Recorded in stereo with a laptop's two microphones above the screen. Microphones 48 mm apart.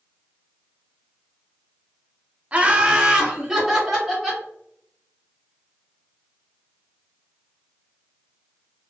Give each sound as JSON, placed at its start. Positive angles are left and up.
{"t": 2.5, "sound": "laughter", "side_deg": -25, "distance_m": 0.6}